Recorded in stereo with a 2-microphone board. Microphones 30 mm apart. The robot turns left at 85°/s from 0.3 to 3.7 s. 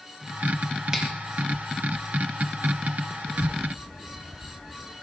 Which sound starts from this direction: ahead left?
A child speaking, at 3.3 s.